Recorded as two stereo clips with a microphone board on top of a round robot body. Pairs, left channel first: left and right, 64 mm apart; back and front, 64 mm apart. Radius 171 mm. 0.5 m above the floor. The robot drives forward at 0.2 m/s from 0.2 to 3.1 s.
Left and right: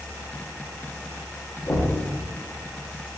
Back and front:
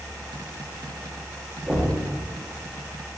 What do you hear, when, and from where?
1.7 s knocking: 85° left, 1.0 m; by 2.0 s 90° left, 1.0 m